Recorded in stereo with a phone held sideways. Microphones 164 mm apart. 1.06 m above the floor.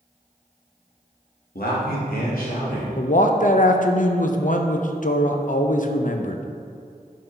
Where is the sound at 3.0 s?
55° left (ahead or behind), 0.6 m.